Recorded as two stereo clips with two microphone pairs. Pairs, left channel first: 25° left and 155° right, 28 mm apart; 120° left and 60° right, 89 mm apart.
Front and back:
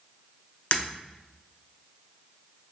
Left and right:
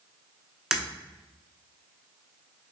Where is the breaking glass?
25° left, 1.0 m.